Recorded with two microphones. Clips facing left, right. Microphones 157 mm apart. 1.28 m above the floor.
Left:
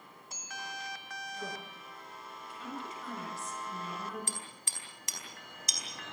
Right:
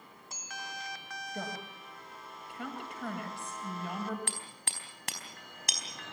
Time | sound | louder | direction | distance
1.3 | a woman speaking | right 4 dB | 65° right (ahead or behind) | 8 m
4.3 | hammering | right 1 dB | 65° right (ahead or behind) | 4.5 m